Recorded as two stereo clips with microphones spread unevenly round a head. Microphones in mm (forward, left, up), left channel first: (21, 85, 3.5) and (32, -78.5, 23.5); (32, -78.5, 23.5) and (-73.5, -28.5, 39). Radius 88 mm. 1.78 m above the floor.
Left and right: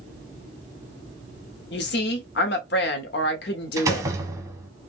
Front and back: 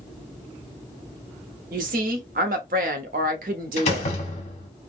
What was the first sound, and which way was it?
A woman speaking, 130° left.